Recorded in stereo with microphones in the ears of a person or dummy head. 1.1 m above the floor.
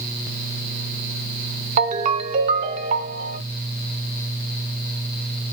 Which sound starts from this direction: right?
A ringtone, at 1.8 s.